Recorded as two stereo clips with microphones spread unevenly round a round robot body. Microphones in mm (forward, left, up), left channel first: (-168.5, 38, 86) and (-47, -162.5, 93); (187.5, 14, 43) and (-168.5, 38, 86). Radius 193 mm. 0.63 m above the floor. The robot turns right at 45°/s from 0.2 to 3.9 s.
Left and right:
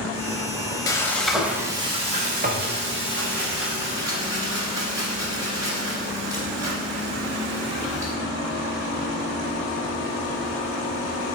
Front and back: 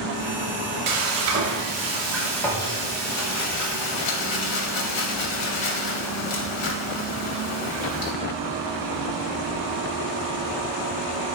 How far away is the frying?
About 0.5 m.